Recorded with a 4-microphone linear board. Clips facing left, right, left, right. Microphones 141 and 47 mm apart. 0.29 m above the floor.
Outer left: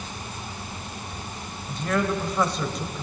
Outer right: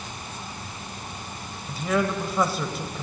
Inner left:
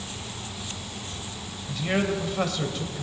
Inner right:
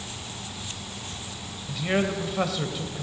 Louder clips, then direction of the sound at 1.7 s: Even, even; 5° right (ahead or behind).